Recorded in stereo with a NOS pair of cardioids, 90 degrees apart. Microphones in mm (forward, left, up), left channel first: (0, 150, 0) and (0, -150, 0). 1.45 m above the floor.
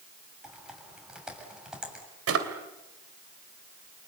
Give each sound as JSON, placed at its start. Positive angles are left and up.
{"t": 0.4, "sound": "typing on a keyboard", "azimuth_deg": -5, "distance_m": 7.0}
{"t": 2.3, "sound": "a drawer", "azimuth_deg": -55, "distance_m": 3.0}